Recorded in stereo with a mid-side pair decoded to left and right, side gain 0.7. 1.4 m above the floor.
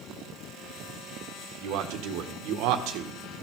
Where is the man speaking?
70° right, 1.5 m.